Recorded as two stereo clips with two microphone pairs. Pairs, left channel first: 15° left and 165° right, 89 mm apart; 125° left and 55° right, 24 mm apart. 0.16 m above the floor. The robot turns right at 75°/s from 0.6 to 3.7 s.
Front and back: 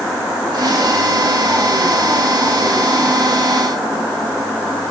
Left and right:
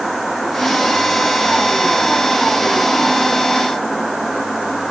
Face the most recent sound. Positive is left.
No sound to turn to.